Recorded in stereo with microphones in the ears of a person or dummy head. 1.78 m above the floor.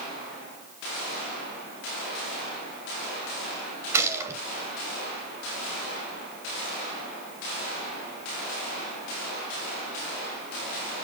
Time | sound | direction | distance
3.9 | a gunshot | 20° right (ahead or behind) | 1.9 m